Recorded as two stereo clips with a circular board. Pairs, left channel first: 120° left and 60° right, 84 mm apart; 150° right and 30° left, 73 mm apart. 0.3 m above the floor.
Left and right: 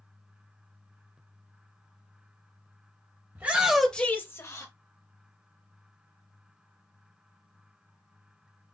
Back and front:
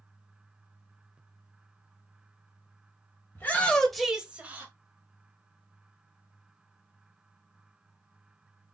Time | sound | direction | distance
3.4 | a shout | 110° right | 1.2 m